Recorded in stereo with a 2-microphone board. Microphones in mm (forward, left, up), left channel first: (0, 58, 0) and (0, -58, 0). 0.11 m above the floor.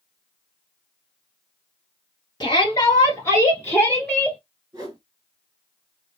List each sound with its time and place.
2.4 s a shout: 35° left (ahead or behind), 1.5 m; by 4.4 s centre (ahead or behind), 1.8 m
4.7 s a whoosh: 30° right (ahead or behind), 1.7 m